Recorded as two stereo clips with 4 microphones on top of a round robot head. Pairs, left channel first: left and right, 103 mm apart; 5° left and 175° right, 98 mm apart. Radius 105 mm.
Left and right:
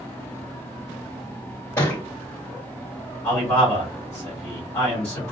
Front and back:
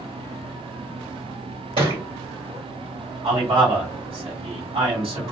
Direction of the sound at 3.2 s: 155° left.